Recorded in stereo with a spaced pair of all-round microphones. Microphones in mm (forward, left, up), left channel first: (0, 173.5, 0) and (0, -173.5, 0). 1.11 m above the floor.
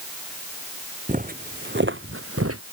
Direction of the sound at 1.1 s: 25° right (ahead or behind).